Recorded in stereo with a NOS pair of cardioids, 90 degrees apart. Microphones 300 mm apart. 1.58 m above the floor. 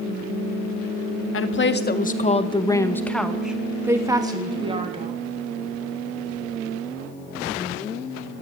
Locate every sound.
1.3 s a woman speaking: 45° left, 1.7 m; by 5.2 s 20° right, 3 m